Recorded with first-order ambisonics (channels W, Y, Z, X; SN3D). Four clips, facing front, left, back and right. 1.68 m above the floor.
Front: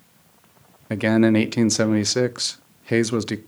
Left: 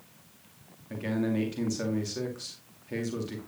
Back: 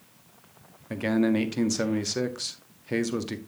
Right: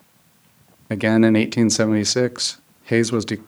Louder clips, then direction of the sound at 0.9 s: Right 14 dB, front 7 dB; 60° right.